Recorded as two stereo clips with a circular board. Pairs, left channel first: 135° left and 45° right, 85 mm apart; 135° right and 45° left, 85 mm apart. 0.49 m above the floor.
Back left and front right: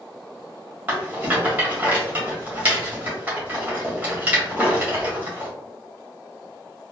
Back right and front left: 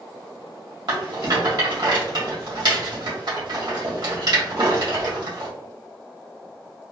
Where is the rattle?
25° left, 1.6 m.